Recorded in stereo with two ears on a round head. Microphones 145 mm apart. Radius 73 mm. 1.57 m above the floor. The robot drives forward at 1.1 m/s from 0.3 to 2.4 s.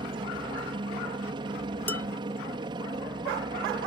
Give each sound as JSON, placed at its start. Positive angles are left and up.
{"t": 0.0, "sound": "a helicopter", "side_deg": -30}
{"t": 1.9, "sound": "dishes clattering", "side_deg": 10}